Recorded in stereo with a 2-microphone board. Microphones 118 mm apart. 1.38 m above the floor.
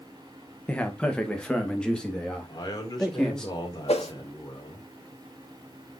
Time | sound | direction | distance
0.7 | a man speaking | 10° left (ahead or behind) | 1.7 m
2.5 | a man speaking | 35° left (ahead or behind) | 4 m
3.9 | a whoosh | 60° left (ahead or behind) | 1.3 m